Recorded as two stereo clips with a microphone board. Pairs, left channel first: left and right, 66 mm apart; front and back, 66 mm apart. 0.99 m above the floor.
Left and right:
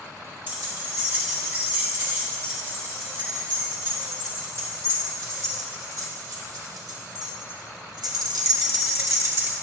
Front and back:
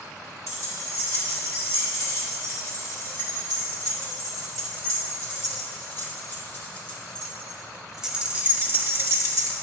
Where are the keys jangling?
30° right, 4 m; by 9.5 s 140° right, 1.1 m.